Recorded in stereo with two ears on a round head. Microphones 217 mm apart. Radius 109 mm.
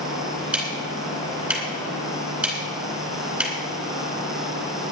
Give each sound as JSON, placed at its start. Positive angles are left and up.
{"t": 0.5, "sound": "ticking", "side_deg": -5, "distance_m": 4.0}